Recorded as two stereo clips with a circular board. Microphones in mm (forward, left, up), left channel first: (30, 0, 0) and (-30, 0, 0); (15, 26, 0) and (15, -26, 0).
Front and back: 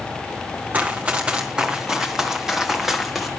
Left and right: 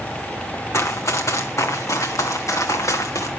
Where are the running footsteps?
115° left, 1.4 m; by 3.3 s 95° left, 3 m.